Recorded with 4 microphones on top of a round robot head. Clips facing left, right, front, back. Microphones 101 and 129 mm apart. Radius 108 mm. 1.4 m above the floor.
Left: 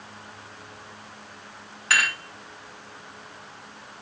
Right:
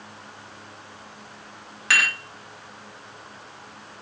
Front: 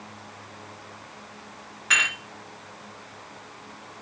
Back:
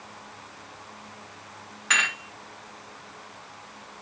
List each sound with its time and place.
1.9 s dishes clattering: 90° right, 1.2 m